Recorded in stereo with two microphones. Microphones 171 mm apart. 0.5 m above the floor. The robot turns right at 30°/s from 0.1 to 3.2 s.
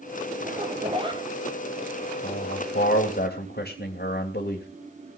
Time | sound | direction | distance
0.4 | a zipper | 45° right (ahead or behind) | 2.5 m
2.2 | a man speaking | 60° left (ahead or behind) | 2.5 m